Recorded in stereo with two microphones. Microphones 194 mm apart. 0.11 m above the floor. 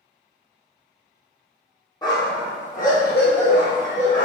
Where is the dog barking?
20° left (ahead or behind), 1.2 m; by 4.2 s 75° left (ahead or behind), 1.8 m.